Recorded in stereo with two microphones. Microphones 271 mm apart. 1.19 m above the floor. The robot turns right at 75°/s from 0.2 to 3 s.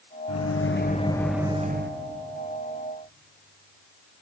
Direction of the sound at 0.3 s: 105° left.